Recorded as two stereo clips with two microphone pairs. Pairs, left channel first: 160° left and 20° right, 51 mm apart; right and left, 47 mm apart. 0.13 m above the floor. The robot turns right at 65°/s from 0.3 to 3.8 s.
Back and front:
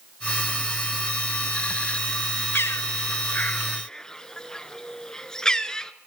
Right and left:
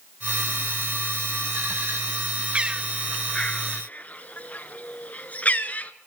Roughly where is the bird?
Behind left.